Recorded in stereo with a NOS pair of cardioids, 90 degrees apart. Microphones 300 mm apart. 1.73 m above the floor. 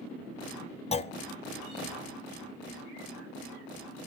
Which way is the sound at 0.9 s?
20° left.